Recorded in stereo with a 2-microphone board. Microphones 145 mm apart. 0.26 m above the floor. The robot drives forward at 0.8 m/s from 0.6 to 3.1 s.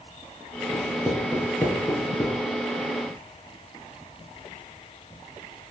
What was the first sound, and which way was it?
Writing, 10° left (ahead or behind).